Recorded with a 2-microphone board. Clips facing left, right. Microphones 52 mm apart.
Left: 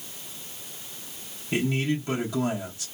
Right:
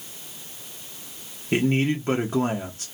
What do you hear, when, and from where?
1.5 s a man speaking: 40° right (ahead or behind), 0.9 m